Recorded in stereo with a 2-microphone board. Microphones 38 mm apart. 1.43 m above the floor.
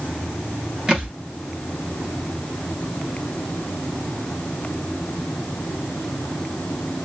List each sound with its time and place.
0.9 s a thud: 25° right (ahead or behind), 0.9 m